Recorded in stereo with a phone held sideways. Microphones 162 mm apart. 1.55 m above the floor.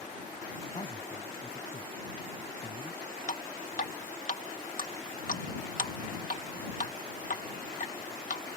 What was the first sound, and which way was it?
A man speaking, 40° left (ahead or behind).